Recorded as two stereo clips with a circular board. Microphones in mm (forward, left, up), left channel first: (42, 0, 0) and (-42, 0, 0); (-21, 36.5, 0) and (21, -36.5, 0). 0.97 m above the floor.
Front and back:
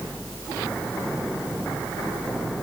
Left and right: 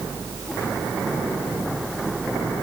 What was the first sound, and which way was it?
Only background noise.